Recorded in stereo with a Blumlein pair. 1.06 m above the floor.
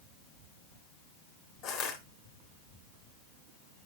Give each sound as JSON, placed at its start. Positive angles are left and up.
{"t": 1.6, "sound": "crushing", "azimuth_deg": 40, "distance_m": 3.5}